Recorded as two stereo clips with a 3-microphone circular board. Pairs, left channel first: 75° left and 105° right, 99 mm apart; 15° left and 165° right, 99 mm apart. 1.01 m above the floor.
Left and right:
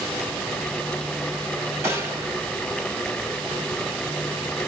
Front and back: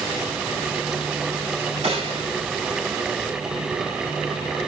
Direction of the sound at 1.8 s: 165° right.